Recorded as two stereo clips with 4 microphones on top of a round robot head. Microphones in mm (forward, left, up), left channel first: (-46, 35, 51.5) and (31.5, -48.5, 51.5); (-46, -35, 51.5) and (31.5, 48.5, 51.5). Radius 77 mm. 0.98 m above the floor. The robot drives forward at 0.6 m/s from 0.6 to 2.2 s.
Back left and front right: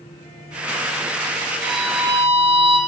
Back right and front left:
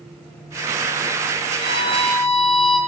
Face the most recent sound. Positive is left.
turn(degrees=-90)